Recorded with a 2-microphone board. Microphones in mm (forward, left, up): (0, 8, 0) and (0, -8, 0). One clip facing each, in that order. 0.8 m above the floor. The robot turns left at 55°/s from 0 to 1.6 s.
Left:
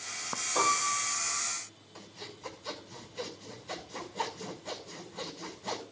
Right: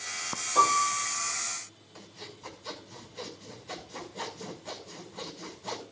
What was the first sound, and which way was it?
A piano, 115° right.